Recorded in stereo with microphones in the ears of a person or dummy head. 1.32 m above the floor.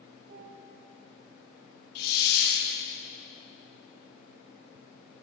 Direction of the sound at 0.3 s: 50° right (ahead or behind).